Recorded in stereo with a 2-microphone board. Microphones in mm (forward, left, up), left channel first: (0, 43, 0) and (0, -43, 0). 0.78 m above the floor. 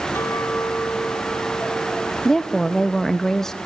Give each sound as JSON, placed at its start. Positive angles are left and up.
{"t": 0.1, "sound": "a clink", "side_deg": 30, "distance_m": 3.5}
{"t": 2.2, "sound": "a woman speaking", "side_deg": 5, "distance_m": 0.6}